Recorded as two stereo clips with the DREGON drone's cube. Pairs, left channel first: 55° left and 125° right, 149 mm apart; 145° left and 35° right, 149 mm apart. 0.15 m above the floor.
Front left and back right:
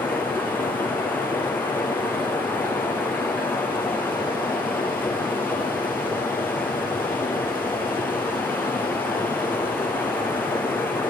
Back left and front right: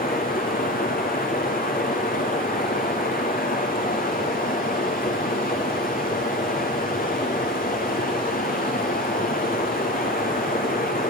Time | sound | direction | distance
0.0 | running water | 135° left | 2.5 m